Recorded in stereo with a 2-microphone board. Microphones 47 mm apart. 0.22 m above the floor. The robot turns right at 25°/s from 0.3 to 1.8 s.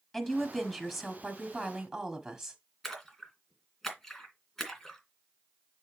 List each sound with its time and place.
0.1 s a woman speaking: 10° left (ahead or behind), 1.2 m; by 2.6 s 10° right (ahead or behind), 1.2 m
2.8 s a splash: 10° left (ahead or behind), 2 m